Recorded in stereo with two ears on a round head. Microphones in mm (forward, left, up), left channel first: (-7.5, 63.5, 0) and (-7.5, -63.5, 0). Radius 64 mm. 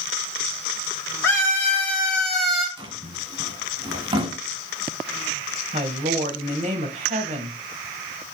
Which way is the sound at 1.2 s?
20° left (ahead or behind).